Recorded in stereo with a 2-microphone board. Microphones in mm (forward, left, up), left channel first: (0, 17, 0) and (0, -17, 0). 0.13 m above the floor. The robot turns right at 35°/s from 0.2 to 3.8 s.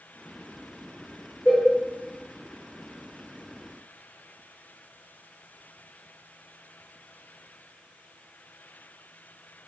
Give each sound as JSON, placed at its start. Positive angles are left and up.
{"t": 1.4, "sound": "a cowbell", "side_deg": 20, "distance_m": 1.8}